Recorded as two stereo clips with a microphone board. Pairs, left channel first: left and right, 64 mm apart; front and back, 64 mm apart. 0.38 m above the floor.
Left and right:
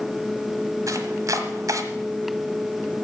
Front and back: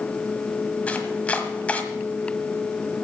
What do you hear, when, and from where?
0.9 s chopping: 70° right, 1.4 m